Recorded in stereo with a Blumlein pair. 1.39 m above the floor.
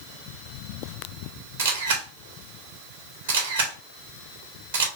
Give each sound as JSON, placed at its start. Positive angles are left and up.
{"t": 1.6, "sound": "a camera shutter", "azimuth_deg": -60, "distance_m": 1.2}